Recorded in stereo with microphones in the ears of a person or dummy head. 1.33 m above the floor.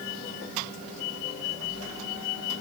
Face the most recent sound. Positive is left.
No sound to turn to.